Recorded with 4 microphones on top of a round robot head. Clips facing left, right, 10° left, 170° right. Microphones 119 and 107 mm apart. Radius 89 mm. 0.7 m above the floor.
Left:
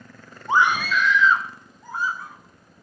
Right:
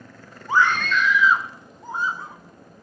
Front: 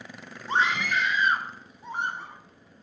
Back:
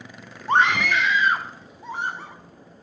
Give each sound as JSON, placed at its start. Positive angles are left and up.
{"t": 0.5, "sound": "a scream", "azimuth_deg": 155, "distance_m": 1.0}